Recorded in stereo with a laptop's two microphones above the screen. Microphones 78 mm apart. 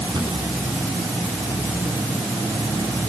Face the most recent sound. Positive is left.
turn(degrees=-85)